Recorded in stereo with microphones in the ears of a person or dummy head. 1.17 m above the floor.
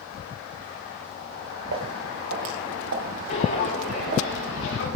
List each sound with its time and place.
1.7 s footsteps: 70° right (ahead or behind), 5 m; by 4.3 s 45° right (ahead or behind), 3.5 m
3.3 s footsteps: 50° left (ahead or behind), 4.5 m; by 4.9 s 75° left (ahead or behind), 5.5 m